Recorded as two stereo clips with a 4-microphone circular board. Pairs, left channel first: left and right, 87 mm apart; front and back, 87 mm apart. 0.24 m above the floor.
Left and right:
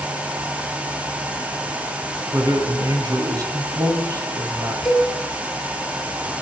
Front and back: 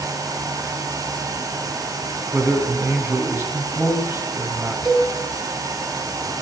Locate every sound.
2.3 s a man speaking: 130° right, 2 m
4.8 s a cowbell: 175° right, 2.0 m